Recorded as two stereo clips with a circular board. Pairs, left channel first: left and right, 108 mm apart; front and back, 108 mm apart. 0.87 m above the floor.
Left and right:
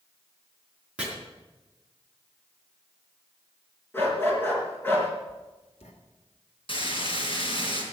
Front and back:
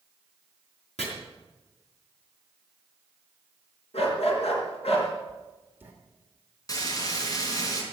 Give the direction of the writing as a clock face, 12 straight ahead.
8 o'clock.